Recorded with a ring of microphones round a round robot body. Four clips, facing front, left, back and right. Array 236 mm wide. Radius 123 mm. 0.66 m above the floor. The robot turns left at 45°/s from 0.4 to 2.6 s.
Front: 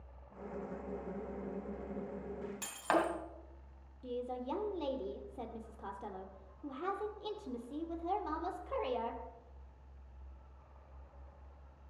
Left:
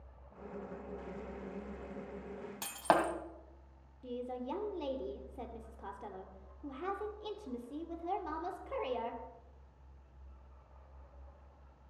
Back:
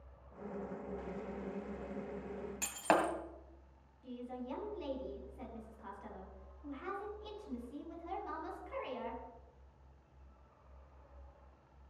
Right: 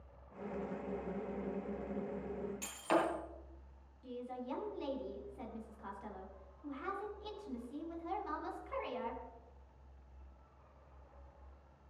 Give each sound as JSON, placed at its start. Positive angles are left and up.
{"t": 2.6, "sound": "breaking glass", "azimuth_deg": 115, "distance_m": 2.5}
{"t": 4.0, "sound": "a woman speaking", "azimuth_deg": 40, "distance_m": 2.5}